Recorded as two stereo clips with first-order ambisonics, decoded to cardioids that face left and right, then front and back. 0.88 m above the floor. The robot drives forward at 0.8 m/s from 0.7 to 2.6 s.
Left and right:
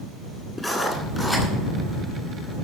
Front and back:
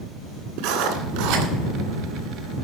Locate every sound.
0.6 s writing: 170° left, 1.9 m